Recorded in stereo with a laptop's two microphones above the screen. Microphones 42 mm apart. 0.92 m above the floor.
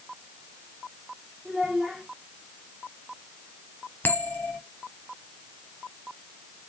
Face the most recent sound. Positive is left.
turn(degrees=55)  # may be behind; listen again after turning